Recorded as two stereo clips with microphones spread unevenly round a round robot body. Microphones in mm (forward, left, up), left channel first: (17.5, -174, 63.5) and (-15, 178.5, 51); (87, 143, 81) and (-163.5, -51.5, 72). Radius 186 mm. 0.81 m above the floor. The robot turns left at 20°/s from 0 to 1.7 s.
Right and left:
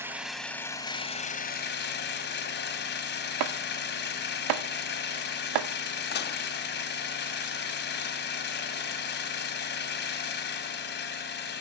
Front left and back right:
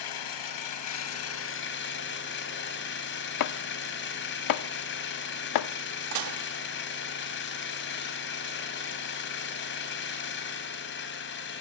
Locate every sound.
0.0 s an engine running: 10° left, 3 m; by 11.6 s 20° right, 3 m
3.4 s chopping: 65° left, 0.9 m
6.1 s dishes clattering: 150° right, 1.1 m